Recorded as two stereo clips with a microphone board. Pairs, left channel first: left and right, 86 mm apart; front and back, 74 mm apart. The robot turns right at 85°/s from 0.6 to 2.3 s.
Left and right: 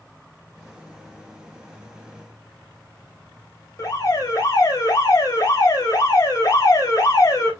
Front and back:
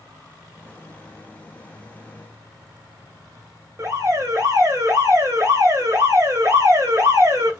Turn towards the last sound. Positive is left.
turn(degrees=135)